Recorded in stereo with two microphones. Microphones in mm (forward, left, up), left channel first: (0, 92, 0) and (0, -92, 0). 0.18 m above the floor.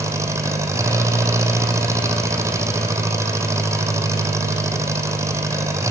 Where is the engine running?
15° right (ahead or behind), 3.5 m.